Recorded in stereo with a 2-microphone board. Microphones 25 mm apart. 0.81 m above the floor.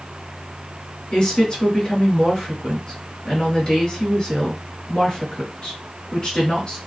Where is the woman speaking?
35° left (ahead or behind), 1.4 m.